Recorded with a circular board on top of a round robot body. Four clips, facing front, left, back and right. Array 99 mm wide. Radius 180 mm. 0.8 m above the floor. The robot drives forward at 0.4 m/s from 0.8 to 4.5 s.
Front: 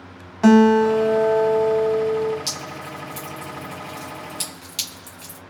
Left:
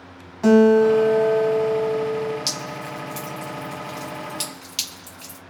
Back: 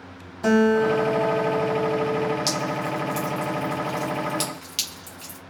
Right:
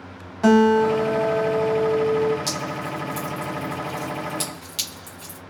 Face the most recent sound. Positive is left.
turn(degrees=155)